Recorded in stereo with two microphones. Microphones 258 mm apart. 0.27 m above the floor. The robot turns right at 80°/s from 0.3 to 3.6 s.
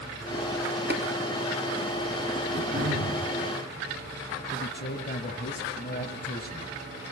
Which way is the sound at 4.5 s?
40° left (ahead or behind).